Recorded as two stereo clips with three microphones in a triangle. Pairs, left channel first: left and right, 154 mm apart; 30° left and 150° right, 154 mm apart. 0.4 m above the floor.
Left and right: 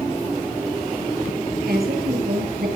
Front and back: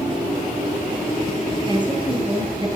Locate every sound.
1.7 s a woman speaking: 90° right, 8 m